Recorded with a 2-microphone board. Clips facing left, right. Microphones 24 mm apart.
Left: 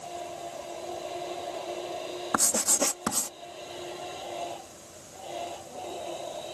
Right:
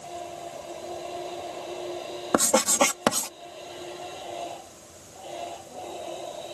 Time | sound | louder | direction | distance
2.3 | writing | right 6 dB | 65° right (ahead or behind) | ?